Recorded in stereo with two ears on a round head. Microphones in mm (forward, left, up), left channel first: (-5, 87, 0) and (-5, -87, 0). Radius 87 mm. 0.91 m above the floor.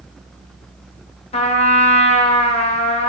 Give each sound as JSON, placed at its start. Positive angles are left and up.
{"t": 1.3, "sound": "a trumpet", "side_deg": 35, "distance_m": 0.8}